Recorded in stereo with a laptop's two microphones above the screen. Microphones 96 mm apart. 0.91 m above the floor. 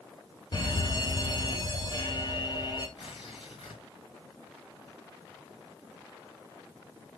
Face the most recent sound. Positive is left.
turn(degrees=60)  # may be behind; listen again after turning